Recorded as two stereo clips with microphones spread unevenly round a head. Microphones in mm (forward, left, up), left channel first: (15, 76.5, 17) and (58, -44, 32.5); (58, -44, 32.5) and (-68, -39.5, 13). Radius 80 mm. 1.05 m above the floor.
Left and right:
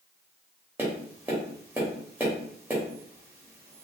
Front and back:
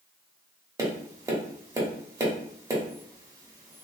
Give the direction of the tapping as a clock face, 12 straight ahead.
4 o'clock.